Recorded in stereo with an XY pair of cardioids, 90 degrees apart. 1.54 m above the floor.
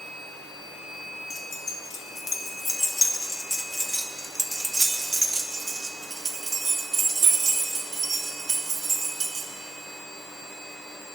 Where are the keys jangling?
55° left, 1.8 m; by 9.5 s 60° right, 3.5 m.